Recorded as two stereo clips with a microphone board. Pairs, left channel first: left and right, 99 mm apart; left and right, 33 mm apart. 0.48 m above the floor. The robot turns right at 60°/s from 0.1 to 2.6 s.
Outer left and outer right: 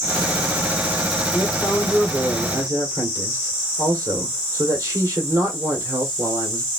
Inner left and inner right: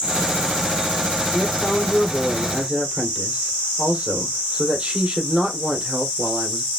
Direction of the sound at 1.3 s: 150° left.